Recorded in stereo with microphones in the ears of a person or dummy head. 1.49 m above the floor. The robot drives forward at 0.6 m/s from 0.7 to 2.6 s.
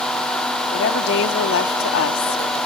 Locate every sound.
0.7 s a woman speaking: 65° left (ahead or behind); by 2.7 s 85° left